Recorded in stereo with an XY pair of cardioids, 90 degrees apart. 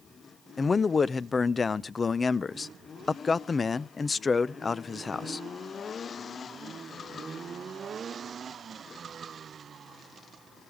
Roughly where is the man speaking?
Ahead left.